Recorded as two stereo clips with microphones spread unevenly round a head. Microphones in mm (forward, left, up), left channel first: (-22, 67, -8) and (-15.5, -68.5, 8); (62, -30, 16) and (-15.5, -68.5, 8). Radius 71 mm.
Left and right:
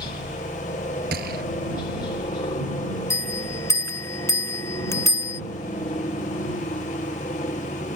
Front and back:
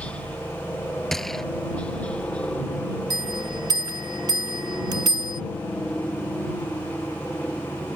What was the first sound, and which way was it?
A helicopter, 100° left.